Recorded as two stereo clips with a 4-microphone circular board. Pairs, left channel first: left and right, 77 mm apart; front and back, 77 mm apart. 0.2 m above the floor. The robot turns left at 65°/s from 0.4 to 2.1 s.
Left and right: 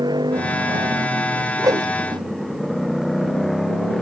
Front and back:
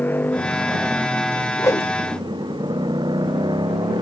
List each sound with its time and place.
0.0 s a motorcycle: 65° right; by 4.0 s 175° left
1.6 s a whoosh: 45° right; by 2.2 s 80° right